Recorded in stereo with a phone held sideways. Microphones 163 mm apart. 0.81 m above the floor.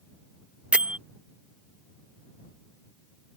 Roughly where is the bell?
Centre.